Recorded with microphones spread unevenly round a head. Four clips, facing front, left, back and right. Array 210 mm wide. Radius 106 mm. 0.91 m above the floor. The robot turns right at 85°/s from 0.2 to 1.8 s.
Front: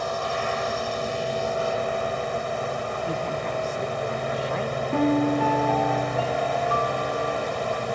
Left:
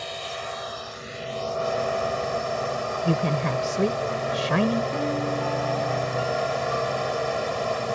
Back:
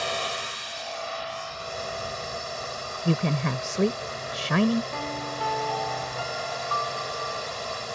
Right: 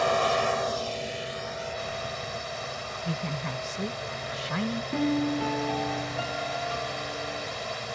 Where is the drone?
85° right; by 8.0 s 50° left.